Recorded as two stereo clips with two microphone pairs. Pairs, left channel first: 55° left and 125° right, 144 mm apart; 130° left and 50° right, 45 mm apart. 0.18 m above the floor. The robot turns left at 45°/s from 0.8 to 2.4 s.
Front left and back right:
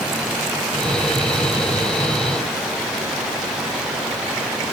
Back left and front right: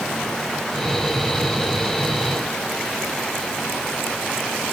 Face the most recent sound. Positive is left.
No sound to turn to.